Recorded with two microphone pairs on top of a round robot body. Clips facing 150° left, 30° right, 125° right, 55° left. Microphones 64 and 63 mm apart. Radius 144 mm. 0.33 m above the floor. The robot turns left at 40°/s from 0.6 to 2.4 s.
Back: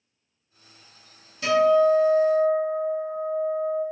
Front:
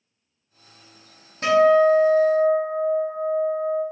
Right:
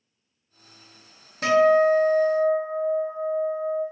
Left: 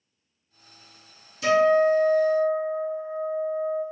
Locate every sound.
1.4 s a guitar: 80° right, 0.7 m; by 3.8 s 120° right, 0.7 m